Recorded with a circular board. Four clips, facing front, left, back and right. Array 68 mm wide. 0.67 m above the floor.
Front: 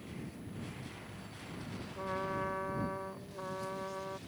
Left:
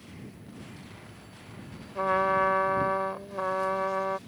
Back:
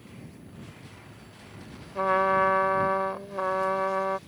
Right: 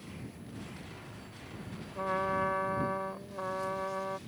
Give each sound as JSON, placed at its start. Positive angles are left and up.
{"t": 1.9, "sound": "a trumpet", "azimuth_deg": 155}